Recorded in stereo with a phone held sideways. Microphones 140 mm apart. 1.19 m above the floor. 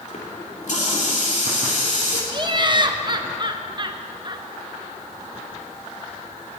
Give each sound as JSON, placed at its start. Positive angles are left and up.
{"t": 0.1, "sound": "a running tap", "side_deg": 60, "distance_m": 2.5}
{"t": 2.3, "sound": "laughter", "side_deg": -35, "distance_m": 1.2}